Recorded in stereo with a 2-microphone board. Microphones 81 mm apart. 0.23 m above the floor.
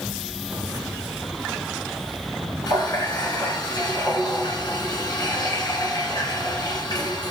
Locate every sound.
2.7 s a running tap: 65° left (ahead or behind), 1.9 m